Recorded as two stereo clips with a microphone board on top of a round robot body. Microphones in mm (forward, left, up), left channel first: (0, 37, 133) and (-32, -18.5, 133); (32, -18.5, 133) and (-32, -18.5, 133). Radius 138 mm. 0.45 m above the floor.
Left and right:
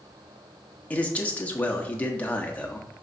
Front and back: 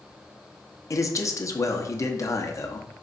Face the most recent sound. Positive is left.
turn(degrees=0)